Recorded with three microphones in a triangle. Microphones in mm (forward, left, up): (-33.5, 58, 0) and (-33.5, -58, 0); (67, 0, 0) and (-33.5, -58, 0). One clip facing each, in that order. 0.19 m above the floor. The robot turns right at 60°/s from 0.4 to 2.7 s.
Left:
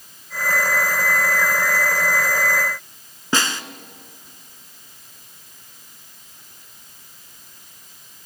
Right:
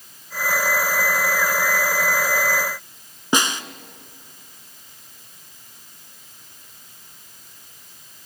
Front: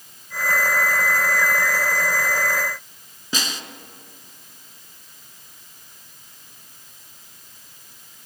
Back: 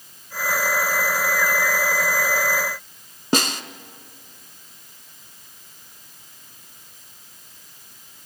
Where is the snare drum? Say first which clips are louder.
Right 1 dB, back 8 dB; 160° right, 0.8 m.